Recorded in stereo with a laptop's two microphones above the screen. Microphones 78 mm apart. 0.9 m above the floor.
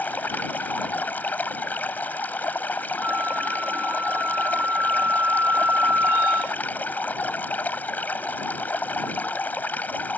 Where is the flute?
30° right (ahead or behind).